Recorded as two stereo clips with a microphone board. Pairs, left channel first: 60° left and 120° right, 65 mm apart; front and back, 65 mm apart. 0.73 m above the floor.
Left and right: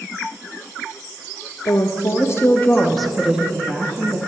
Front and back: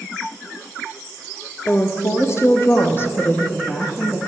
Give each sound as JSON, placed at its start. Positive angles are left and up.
{"t": 1.6, "sound": "a woman speaking", "azimuth_deg": 50, "distance_m": 1.1}